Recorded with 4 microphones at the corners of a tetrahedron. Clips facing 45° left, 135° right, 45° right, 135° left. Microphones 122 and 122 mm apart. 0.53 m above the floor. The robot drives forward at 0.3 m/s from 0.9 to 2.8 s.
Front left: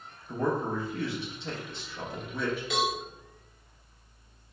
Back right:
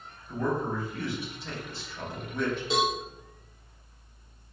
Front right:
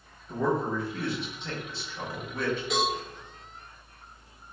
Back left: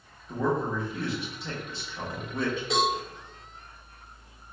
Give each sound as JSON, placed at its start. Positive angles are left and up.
{"t": 0.3, "sound": "a man speaking", "azimuth_deg": 50, "distance_m": 0.9}
{"t": 2.7, "sound": "a cowbell", "azimuth_deg": 180, "distance_m": 1.7}